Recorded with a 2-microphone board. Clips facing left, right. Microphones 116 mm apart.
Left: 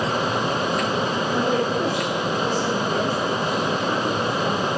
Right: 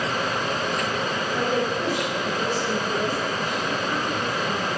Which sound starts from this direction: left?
A woman speaking, at 1.3 s.